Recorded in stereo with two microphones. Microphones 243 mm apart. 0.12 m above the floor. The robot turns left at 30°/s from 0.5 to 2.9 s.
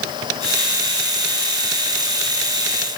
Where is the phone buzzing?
I don't hear a phone buzzing.